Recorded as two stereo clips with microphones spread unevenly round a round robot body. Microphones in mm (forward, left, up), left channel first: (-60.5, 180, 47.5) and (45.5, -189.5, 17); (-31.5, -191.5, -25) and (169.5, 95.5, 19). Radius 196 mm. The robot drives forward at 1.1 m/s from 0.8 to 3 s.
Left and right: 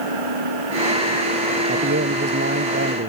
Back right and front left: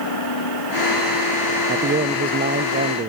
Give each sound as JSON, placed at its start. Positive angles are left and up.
{"t": 0.0, "sound": "an engine running", "azimuth_deg": -95}
{"t": 1.7, "sound": "a man speaking", "azimuth_deg": -10}